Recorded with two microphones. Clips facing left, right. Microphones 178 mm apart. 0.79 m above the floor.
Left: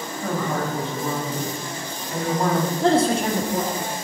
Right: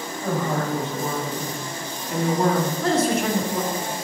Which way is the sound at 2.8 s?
30° left (ahead or behind).